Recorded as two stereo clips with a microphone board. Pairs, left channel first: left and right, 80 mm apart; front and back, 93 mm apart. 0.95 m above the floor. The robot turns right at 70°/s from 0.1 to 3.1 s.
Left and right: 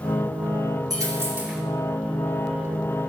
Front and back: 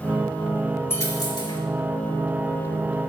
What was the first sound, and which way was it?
A dropped coin, 60° right.